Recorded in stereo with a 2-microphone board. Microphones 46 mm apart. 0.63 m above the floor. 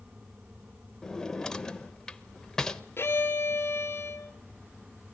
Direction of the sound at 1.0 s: 15° left (ahead or behind).